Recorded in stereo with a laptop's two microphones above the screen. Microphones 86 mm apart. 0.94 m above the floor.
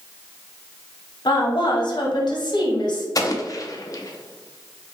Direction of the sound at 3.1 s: 45° left (ahead or behind).